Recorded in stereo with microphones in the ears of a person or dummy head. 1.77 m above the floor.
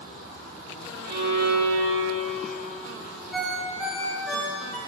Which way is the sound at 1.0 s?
40° right (ahead or behind).